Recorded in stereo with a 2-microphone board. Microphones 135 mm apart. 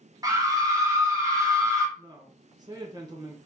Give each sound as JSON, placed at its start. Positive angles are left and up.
{"t": 0.2, "sound": "a scream", "side_deg": -25, "distance_m": 0.9}
{"t": 2.0, "sound": "a woman speaking", "side_deg": -30, "distance_m": 0.9}